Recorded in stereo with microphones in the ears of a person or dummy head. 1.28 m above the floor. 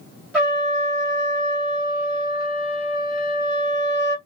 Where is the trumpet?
5° right (ahead or behind), 1.7 m.